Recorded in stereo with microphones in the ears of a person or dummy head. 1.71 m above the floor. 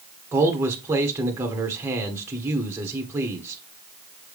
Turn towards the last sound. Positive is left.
turn(degrees=-15)  # may be behind; listen again after turning